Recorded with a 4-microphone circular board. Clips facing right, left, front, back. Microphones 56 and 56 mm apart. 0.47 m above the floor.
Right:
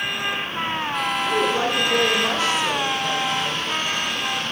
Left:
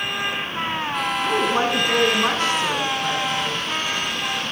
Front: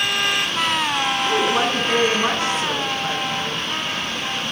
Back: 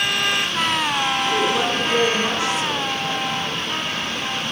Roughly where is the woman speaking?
Ahead left.